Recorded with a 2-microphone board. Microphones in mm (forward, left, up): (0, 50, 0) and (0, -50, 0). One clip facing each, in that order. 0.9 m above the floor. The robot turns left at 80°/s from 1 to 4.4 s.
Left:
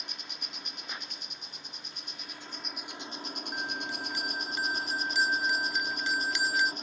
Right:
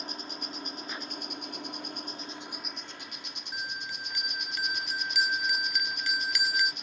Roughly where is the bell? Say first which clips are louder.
Left 1 dB; centre.